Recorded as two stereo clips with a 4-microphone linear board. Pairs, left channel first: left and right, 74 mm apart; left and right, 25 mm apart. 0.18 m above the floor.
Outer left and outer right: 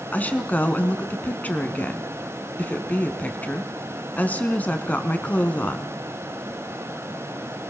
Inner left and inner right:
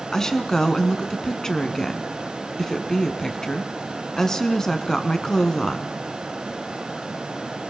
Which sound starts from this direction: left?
A woman speaking, at 0.1 s.